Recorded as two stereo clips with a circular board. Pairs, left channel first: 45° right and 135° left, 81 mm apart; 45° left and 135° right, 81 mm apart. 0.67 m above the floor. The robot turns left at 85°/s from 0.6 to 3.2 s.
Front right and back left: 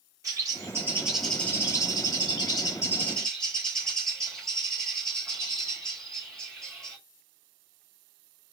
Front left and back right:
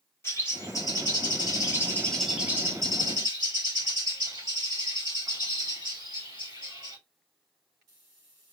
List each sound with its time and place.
0.2 s a bird: 95° left, 1.5 m; by 7.0 s 125° right, 1.5 m